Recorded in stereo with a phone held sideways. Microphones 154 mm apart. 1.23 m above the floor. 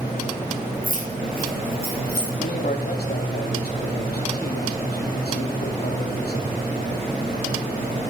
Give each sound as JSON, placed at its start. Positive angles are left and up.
{"t": 0.8, "sound": "keys jangling", "side_deg": 65, "distance_m": 4.5}
{"t": 2.4, "sound": "a man speaking", "side_deg": 85, "distance_m": 3.0}